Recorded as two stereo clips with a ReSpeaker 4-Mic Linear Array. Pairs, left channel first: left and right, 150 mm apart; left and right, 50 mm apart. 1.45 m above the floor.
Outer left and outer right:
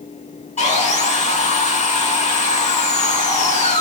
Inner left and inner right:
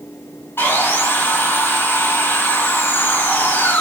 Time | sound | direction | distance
0.6 | sawing | 50° left (ahead or behind) | 1.9 m